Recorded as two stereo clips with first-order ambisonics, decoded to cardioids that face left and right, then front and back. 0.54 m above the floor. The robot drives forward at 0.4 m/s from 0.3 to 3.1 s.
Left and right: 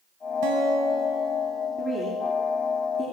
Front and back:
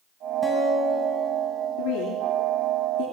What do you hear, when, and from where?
0.4 s a guitar: 85° right, 4.5 m; by 1.7 s 90° right, 4.5 m
1.8 s a woman speaking: 20° right, 9 m